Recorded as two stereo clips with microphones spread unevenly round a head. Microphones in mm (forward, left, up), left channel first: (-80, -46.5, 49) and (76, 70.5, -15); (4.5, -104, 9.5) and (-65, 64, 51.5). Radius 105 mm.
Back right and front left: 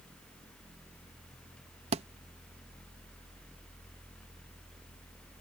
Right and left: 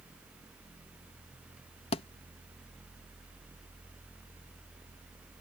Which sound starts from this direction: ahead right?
A thud, at 1.9 s.